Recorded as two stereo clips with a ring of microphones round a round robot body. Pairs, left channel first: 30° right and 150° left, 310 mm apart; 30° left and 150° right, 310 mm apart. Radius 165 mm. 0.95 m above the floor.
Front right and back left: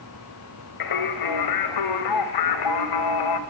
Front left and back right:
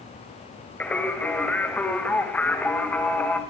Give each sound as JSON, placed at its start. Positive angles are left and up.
{"t": 0.8, "sound": "singing", "azimuth_deg": -55, "distance_m": 2.5}